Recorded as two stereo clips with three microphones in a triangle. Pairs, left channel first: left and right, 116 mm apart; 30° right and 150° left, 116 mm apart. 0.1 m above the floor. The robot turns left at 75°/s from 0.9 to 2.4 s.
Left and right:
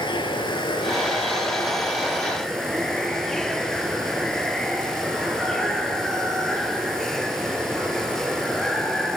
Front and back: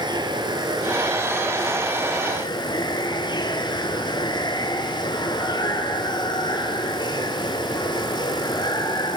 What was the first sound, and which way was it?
Running water, 115° left.